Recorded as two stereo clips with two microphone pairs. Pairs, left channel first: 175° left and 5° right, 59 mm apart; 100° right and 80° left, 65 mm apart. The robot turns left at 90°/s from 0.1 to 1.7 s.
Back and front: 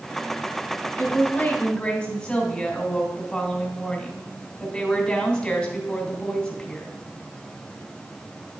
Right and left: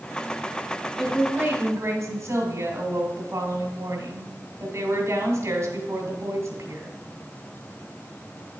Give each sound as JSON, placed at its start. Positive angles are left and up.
{"t": 1.0, "sound": "a woman speaking", "azimuth_deg": 175, "distance_m": 2.0}